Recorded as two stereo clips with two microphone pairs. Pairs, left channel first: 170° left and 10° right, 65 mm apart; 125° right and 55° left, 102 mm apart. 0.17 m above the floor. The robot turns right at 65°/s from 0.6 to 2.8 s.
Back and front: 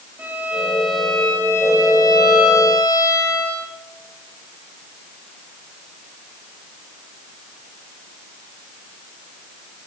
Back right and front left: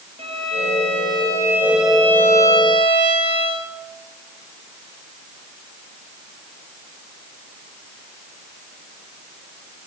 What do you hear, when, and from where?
0.2 s a violin: 60° left, 6.5 m; by 3.7 s 155° right, 6.5 m